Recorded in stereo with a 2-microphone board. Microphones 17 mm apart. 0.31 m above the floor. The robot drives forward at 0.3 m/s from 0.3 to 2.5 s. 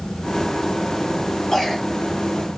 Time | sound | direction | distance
1.5 | a cough | 40° left (ahead or behind) | 1.9 m